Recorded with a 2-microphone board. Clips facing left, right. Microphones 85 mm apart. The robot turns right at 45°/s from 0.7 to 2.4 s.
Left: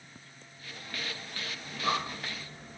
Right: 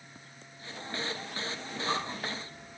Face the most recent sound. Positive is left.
turn(degrees=65)  # may be behind; listen again after turning